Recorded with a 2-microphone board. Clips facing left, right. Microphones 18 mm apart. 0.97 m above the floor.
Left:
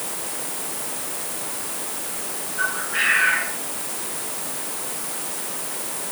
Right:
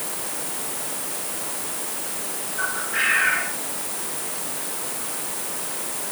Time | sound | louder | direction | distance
2.6 | a bird | left 1 dB | 10° left (ahead or behind) | 6.5 m